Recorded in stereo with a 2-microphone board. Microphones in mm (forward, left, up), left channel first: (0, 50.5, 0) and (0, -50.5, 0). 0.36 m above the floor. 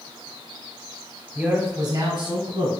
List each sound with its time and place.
1.4 s a man speaking: 15° right (ahead or behind), 1.2 m; by 2.7 s 65° right (ahead or behind), 2.5 m